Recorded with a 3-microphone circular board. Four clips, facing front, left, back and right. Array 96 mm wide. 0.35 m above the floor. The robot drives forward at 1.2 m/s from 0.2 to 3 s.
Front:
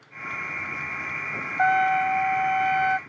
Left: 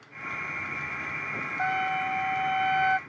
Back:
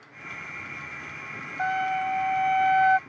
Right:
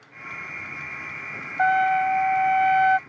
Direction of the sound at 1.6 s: 55° right.